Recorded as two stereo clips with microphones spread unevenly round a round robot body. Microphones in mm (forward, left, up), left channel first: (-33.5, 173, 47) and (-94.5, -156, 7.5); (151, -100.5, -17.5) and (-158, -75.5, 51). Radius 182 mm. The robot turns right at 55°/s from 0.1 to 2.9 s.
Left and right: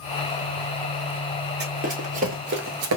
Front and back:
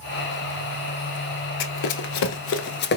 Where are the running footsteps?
40° right, 0.7 m; by 3.0 s 70° right, 0.5 m.